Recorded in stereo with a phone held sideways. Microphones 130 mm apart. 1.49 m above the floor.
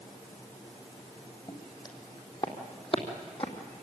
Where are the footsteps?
30° left (ahead or behind), 3 m; by 3.8 s 50° left (ahead or behind), 3 m.